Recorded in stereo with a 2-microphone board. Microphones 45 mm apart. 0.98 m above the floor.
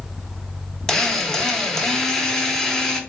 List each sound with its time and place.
0.9 s a drill: 15° left (ahead or behind), 0.9 m